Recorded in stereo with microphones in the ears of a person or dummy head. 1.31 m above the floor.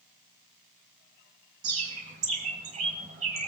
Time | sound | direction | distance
1.6 | a bird | 35° right (ahead or behind) | 1.9 m